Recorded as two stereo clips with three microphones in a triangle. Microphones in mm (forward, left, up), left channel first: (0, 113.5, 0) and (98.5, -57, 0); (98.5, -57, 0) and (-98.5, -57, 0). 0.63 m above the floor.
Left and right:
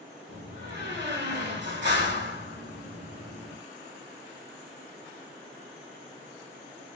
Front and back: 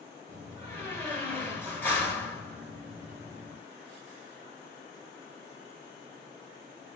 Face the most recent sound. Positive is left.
turn(degrees=-80)